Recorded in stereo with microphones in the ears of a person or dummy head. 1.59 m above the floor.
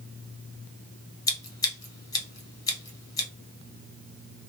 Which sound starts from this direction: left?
Scissors, at 1.3 s.